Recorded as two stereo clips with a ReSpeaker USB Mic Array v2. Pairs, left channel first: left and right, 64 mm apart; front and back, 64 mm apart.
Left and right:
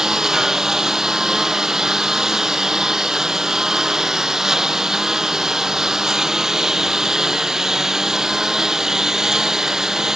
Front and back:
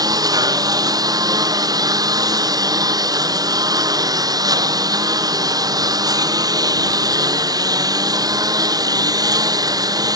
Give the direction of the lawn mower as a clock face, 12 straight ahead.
6 o'clock.